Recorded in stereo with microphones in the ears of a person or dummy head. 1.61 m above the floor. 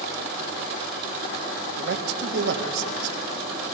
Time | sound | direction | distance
1.8 | a man speaking | 70° right (ahead or behind) | 1.7 m